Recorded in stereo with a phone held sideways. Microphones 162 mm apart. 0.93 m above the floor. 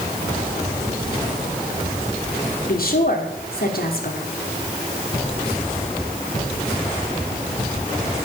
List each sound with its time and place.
2.6 s a woman speaking: 65° left (ahead or behind), 3 m